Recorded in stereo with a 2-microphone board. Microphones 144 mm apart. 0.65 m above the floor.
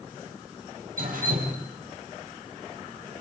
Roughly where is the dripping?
Right.